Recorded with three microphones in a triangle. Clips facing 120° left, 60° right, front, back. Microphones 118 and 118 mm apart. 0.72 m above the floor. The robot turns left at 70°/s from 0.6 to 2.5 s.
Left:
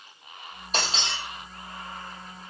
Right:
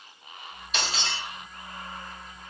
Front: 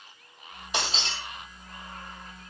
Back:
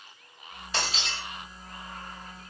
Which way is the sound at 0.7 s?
70° left.